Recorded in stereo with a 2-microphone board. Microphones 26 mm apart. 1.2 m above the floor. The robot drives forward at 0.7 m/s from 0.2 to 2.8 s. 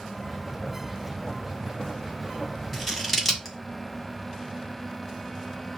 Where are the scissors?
5° left (ahead or behind), 1.1 m.